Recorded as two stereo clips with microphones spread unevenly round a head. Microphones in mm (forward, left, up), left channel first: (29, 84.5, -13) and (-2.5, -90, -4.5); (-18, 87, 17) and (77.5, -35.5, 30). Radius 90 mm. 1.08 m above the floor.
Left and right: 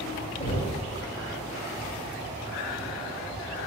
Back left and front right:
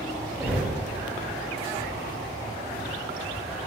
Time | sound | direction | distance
0.4 | knocking | 20° left | 2.5 m